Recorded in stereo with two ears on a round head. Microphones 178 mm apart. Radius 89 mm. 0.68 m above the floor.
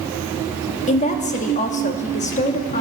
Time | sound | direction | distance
0.9 | a woman speaking | 35° left (ahead or behind) | 1.3 m